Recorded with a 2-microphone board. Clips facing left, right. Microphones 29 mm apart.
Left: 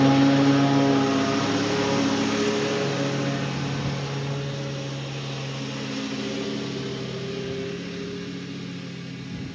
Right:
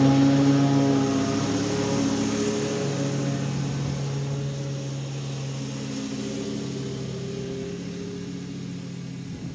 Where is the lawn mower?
25° left (ahead or behind); by 9.6 s 35° left (ahead or behind).